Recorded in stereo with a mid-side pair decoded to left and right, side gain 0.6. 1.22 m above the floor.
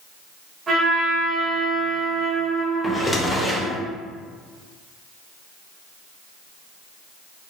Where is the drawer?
10° left, 0.8 m.